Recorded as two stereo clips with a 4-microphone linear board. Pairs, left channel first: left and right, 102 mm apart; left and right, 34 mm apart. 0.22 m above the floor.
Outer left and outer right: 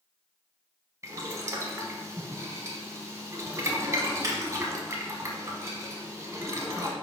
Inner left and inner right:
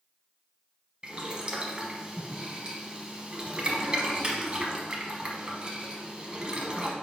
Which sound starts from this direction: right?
Boiling, at 1.0 s.